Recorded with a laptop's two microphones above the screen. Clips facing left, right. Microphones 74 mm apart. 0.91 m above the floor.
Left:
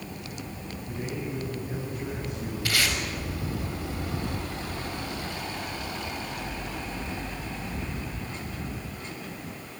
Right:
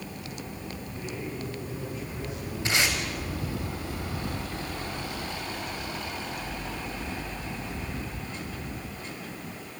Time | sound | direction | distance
0.9 | a man speaking | 70° left (ahead or behind) | 7.5 m
2.6 | tape being pulled | 20° right (ahead or behind) | 6.5 m